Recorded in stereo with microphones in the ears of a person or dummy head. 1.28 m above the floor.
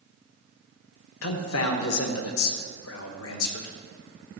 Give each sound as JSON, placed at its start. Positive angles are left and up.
{"t": 1.2, "sound": "a man speaking", "side_deg": 80, "distance_m": 1.2}